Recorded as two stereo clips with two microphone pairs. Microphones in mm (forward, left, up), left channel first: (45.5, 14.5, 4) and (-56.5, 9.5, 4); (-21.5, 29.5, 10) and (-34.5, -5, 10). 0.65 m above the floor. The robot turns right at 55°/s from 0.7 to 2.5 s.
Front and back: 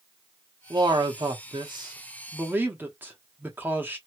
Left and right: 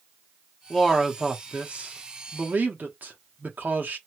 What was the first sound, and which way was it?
A man speaking, 150° left.